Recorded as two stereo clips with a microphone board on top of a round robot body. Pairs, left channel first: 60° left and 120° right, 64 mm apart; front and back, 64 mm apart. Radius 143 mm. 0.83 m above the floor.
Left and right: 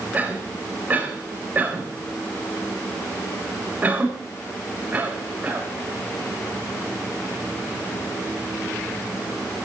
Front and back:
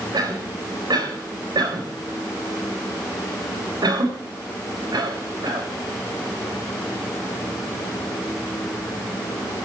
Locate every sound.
0.1 s a cough: 175° left, 4.5 m